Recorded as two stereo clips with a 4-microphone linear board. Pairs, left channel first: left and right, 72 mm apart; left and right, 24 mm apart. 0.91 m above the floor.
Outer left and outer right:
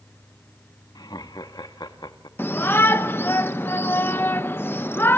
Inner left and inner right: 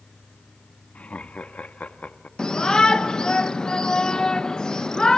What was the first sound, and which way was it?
Laughter, 70° left (ahead or behind).